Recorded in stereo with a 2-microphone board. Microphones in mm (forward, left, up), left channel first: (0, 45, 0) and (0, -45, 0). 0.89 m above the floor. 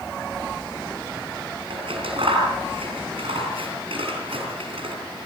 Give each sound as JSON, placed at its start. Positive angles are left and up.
{"t": 1.7, "sound": "scissors", "side_deg": -85, "distance_m": 8.0}